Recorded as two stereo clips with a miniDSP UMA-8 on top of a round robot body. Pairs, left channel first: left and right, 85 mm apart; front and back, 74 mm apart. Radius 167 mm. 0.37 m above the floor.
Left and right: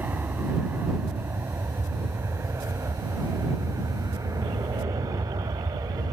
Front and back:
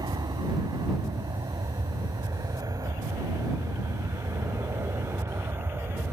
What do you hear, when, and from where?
0.0 s an aircraft: 160° right; by 6.1 s 125° right